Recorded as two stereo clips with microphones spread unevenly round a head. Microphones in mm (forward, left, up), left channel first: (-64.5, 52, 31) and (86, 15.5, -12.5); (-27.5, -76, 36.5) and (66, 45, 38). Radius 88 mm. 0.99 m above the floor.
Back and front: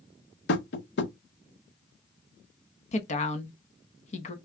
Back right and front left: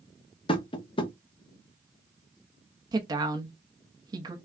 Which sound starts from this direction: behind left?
A woman speaking, at 2.9 s.